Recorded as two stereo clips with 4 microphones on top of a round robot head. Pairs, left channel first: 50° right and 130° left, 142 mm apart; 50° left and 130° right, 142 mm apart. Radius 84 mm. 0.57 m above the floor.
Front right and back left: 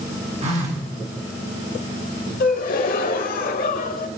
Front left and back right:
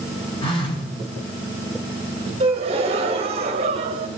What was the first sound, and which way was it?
A phone buzzing, 100° left.